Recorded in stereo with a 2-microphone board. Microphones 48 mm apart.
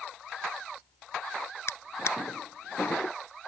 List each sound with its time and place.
1.7 s a drawer: 65° left (ahead or behind)